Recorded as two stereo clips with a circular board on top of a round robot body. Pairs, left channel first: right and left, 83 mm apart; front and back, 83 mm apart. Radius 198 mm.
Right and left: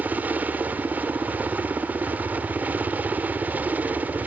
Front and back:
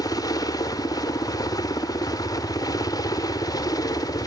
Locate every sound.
0.0 s a helicopter: 25° left